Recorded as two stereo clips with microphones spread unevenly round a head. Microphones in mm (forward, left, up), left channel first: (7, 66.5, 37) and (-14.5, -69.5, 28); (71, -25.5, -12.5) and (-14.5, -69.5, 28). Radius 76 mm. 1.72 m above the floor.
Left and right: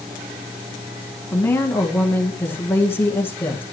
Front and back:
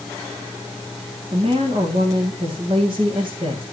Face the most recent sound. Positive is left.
turn(degrees=155)